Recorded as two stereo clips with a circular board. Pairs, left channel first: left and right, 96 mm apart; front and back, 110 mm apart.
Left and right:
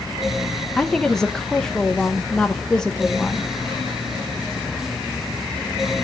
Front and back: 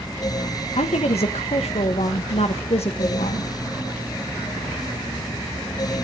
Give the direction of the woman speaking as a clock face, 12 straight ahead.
12 o'clock.